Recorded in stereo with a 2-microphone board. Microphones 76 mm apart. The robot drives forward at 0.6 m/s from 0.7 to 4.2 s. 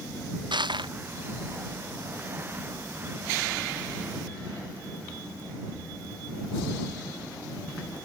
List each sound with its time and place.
0.5 s crushing: 85° right